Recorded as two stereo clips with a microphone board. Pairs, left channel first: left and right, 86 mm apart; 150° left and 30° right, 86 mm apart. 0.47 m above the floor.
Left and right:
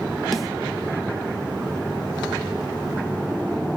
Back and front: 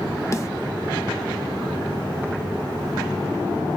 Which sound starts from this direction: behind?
A snare drum, at 0.3 s.